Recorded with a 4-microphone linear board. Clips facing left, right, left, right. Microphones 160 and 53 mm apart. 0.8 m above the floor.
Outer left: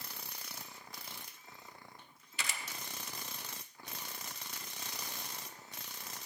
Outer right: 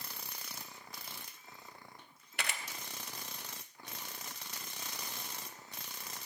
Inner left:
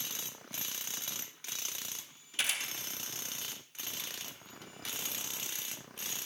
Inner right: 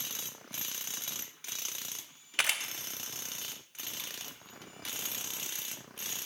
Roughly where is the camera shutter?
Right.